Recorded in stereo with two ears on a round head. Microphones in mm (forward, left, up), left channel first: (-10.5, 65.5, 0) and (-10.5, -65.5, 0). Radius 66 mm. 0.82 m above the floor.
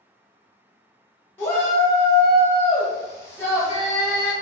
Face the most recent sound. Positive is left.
turn(degrees=15)  # may be behind; listen again after turning